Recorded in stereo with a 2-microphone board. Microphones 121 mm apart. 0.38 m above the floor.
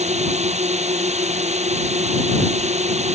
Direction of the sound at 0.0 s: 70° right (ahead or behind).